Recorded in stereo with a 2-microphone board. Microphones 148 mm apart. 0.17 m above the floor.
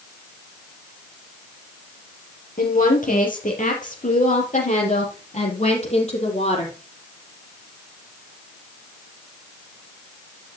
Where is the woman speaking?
65° left (ahead or behind), 4.5 m; by 6.7 s 50° left (ahead or behind), 5.5 m.